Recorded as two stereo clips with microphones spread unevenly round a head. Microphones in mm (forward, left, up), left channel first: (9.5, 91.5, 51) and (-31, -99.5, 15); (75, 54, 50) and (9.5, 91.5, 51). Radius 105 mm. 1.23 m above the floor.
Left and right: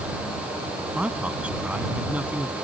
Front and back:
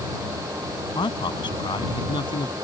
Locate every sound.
0.9 s a man speaking: 15° right; by 2.5 s 20° right